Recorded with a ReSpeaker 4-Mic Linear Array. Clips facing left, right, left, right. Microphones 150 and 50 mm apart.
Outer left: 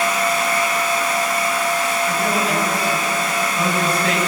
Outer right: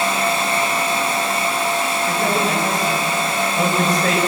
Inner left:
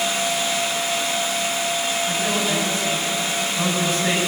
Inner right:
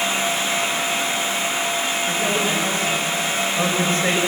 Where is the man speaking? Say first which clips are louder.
Outer right 1 dB, inner right 2 dB; 45° right (ahead or behind), 6.5 m.